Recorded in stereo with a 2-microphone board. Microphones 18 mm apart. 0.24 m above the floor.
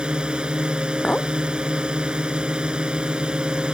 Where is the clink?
85° left.